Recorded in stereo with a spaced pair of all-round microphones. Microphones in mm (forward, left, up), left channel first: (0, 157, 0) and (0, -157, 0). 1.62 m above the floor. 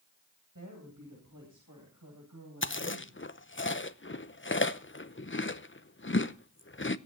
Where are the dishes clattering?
No dishes clattering in this recording.